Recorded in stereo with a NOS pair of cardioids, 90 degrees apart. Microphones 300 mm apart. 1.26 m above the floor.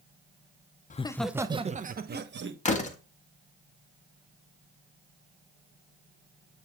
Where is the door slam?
25° left, 1.4 m.